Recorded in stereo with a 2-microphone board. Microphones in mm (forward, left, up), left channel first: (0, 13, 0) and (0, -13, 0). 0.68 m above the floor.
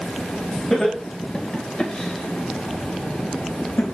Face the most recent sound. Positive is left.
turn(degrees=75)  # may be behind; listen again after turning